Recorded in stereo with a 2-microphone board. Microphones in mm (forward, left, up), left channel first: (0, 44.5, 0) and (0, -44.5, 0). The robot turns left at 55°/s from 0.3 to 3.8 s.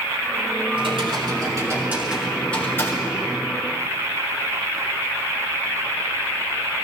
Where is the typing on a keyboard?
95° right, 3.5 m; by 3.5 s 115° left, 3.5 m.